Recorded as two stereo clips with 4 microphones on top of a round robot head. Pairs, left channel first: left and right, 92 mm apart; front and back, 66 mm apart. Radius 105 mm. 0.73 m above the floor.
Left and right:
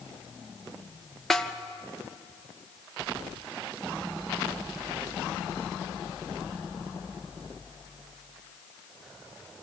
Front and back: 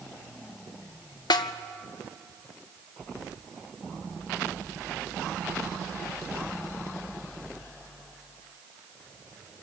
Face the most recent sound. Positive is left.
turn(degrees=5)